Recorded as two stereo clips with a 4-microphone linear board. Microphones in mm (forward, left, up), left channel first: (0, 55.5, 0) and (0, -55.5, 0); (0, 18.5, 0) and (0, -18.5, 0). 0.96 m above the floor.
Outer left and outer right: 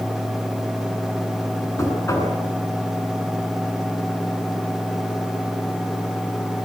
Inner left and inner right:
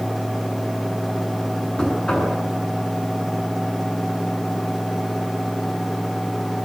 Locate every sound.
1.8 s knocking: 25° left (ahead or behind), 8 m